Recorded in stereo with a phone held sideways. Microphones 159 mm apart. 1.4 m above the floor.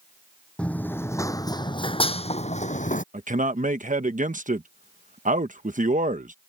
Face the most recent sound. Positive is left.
turn(degrees=-55)  # may be behind; listen again after turning